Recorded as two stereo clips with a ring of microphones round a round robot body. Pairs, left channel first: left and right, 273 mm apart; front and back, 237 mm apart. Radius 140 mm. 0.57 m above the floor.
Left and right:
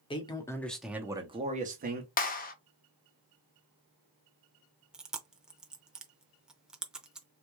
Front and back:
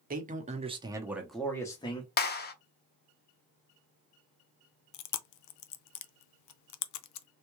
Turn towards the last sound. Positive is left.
turn(degrees=-5)